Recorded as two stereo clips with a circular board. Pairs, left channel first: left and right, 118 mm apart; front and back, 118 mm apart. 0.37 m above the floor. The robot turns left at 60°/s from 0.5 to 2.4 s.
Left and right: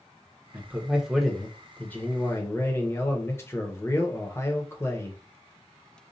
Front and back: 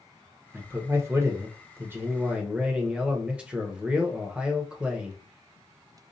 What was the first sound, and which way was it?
A man speaking, 135° right.